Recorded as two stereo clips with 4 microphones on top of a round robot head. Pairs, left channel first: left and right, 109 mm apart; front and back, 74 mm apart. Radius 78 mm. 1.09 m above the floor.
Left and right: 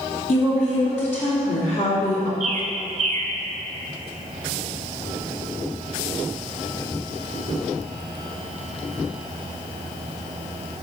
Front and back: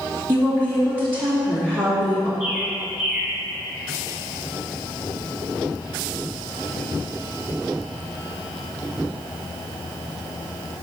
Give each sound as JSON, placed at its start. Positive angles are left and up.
{"t": 0.3, "sound": "a woman speaking", "azimuth_deg": 105, "distance_m": 2.5}
{"t": 2.4, "sound": "a bird", "azimuth_deg": -95, "distance_m": 0.9}